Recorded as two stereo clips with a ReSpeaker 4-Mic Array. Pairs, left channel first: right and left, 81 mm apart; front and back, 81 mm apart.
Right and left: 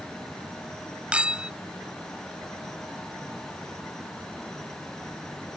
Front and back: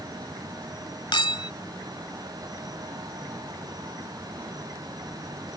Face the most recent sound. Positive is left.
turn(degrees=15)